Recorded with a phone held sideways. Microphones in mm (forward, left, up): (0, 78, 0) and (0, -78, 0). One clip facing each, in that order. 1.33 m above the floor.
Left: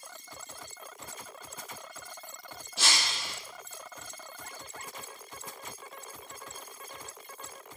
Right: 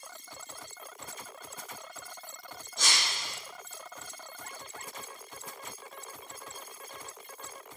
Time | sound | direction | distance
2.8 | breaking glass | 75° left (ahead or behind) | 5.5 m